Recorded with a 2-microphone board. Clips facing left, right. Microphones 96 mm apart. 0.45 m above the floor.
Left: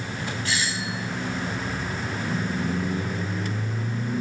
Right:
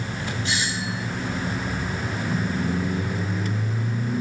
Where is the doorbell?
20° right (ahead or behind), 4 m.